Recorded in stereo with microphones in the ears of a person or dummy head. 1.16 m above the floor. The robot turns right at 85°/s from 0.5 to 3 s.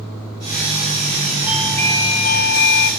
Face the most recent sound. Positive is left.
turn(degrees=120)